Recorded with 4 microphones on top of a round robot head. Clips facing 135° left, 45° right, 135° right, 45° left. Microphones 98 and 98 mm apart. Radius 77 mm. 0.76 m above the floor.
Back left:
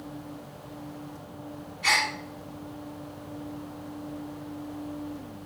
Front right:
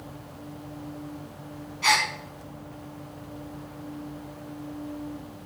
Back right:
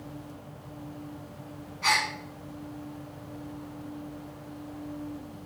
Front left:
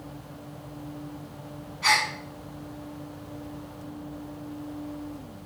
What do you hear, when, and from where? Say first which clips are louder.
1.8 s a gasp: front right 3 dB, front left 2 dB; 45° right, 3.5 m